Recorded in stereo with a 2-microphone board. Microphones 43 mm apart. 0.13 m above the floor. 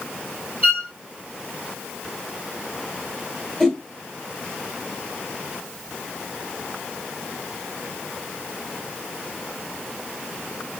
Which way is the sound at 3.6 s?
5° left (ahead or behind).